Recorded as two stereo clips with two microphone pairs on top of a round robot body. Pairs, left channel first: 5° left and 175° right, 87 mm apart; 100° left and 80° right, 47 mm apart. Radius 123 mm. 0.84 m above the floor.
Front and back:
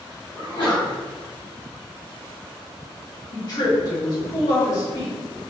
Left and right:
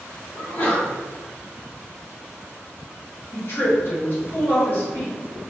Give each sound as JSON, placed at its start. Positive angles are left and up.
{"t": 0.3, "sound": "a sneeze", "azimuth_deg": 35, "distance_m": 1.6}
{"t": 3.3, "sound": "a woman speaking", "azimuth_deg": 55, "distance_m": 1.5}